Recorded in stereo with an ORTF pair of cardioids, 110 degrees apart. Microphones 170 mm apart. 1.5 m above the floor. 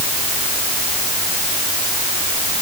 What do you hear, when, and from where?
Only background noise.